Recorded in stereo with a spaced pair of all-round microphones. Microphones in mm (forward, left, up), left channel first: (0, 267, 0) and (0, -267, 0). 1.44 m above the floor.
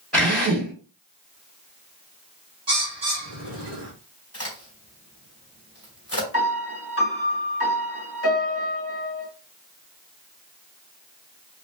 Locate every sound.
0.1 s a drill: centre (ahead or behind), 3 m
2.7 s a bird: 50° right (ahead or behind), 1.4 m
4.3 s a crack: 25° left (ahead or behind), 2.5 m
6.3 s a piano: 25° left (ahead or behind), 1.7 m